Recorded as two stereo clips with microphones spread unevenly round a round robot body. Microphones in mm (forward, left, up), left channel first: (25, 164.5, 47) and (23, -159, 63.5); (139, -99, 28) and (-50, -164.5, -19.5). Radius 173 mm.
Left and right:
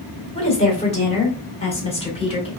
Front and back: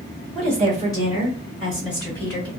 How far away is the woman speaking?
About 1.4 m.